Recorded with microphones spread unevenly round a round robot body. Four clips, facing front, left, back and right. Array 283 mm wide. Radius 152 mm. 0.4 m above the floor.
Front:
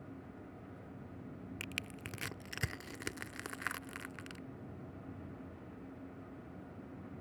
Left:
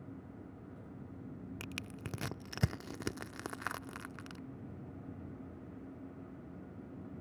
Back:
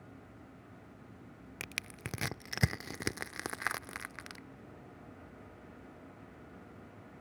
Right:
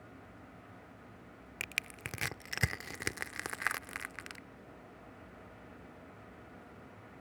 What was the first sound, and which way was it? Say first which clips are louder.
Crushing: even, even; 160° left.